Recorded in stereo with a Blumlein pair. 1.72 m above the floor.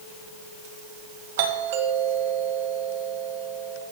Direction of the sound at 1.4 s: 55° right.